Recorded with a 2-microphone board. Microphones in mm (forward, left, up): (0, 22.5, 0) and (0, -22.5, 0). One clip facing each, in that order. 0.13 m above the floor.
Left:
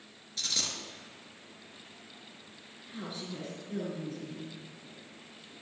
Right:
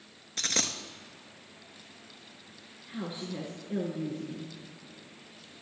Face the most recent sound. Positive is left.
turn(degrees=-15)  # may be behind; listen again after turning